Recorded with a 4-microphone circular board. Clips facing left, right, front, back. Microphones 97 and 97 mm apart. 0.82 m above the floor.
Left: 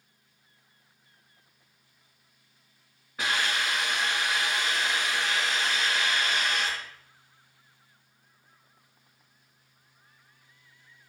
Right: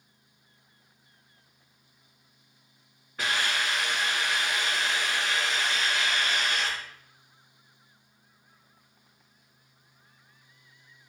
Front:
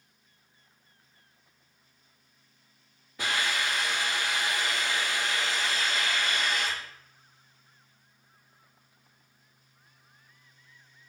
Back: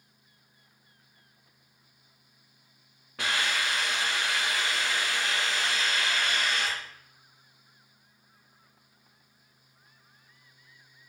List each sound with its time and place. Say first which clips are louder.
3.2 s a hiss: even, even; 175° left, 2 m